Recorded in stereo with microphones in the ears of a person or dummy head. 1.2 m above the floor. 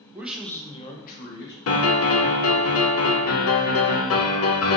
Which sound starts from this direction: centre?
A man speaking, at 0.1 s.